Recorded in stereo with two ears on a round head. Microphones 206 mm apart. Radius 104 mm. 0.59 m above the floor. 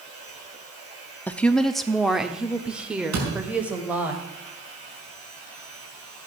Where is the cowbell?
I don't hear a cowbell.